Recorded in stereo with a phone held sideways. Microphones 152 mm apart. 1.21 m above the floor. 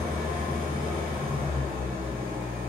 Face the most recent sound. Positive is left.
turn(degrees=-75)  # may be behind; listen again after turning